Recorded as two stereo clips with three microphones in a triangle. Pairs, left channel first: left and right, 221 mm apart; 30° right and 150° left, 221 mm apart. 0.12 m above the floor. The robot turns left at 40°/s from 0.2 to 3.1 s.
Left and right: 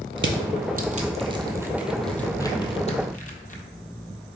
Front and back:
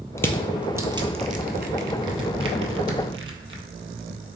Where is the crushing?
110° right, 0.5 m; by 3.6 s 135° left, 0.5 m.